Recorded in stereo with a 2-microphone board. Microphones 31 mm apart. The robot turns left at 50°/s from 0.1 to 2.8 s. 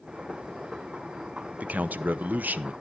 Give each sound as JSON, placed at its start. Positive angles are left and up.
{"t": 1.6, "sound": "a man speaking", "azimuth_deg": -60, "distance_m": 0.7}